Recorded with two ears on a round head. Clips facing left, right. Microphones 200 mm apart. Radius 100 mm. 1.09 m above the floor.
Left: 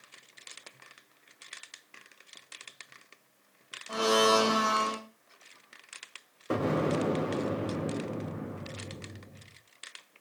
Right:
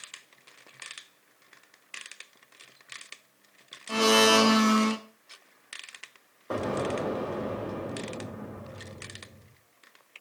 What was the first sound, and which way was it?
A blender, 35° right (ahead or behind).